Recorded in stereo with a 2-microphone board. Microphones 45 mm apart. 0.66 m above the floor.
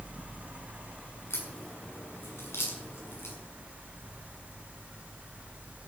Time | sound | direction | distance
1.3 | a crack | 70° left (ahead or behind) | 6.5 m